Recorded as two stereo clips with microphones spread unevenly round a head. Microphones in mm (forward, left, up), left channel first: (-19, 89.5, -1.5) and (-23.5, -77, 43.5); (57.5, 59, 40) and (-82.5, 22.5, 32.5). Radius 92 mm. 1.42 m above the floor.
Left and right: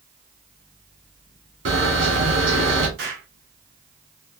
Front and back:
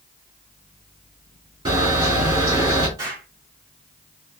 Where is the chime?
No chime in this recording.